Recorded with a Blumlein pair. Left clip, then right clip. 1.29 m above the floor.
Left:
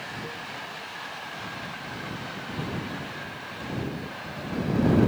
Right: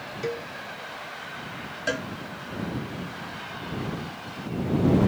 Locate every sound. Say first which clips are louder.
0.2 s a cowbell: right 5 dB; 60° right
1.9 s a cowbell: right 8 dB; 45° right